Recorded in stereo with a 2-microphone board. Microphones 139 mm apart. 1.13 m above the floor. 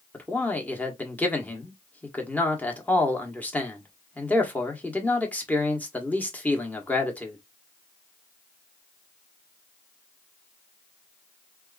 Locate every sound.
0.1 s a man speaking: 10° left (ahead or behind), 1.0 m